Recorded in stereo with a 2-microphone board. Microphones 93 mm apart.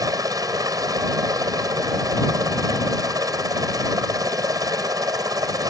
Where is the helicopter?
40° right (ahead or behind).